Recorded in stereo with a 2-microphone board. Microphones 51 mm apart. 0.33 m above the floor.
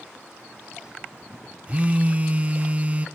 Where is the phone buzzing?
30° right (ahead or behind), 0.7 m.